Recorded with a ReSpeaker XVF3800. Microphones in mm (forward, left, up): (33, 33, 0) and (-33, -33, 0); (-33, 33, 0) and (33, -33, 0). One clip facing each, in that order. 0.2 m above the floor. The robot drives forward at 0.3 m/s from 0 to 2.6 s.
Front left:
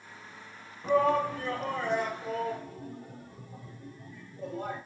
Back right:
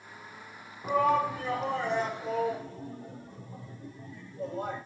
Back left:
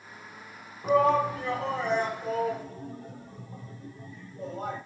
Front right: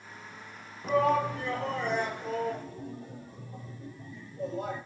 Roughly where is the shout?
Behind.